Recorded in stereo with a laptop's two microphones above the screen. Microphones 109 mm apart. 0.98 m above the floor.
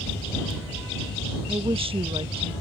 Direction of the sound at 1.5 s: 60° right (ahead or behind).